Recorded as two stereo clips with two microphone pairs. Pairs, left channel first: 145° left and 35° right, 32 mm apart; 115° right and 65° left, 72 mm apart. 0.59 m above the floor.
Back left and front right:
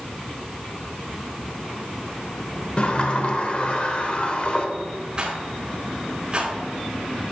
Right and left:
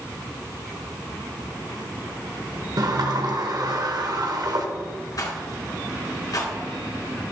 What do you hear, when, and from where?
2.8 s a sliding door: 90° left, 1.2 m
5.2 s a rattle: 90° right, 3 m